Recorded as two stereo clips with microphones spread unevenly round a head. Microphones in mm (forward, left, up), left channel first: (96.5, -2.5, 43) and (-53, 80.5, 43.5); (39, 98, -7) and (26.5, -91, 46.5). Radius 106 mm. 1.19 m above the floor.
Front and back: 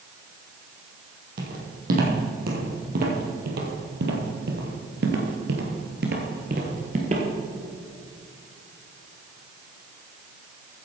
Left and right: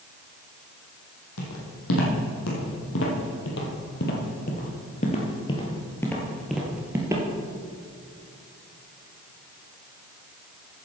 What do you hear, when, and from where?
1.4 s footsteps: 115° left, 3.5 m; by 7.2 s 150° right, 1.8 m